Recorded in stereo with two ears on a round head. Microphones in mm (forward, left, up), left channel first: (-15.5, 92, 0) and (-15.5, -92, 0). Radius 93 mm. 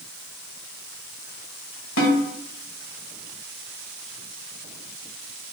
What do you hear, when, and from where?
2.0 s a snare drum: 75° left (ahead or behind), 1.3 m